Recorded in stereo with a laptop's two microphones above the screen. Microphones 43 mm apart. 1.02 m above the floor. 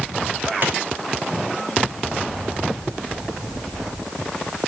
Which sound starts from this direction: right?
A clap, at 0.6 s.